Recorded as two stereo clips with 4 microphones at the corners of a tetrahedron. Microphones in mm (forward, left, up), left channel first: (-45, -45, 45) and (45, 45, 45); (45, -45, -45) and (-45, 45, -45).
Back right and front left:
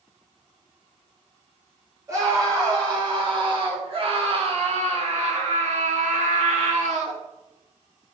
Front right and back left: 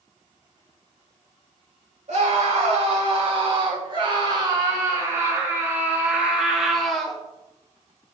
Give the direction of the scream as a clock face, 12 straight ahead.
8 o'clock.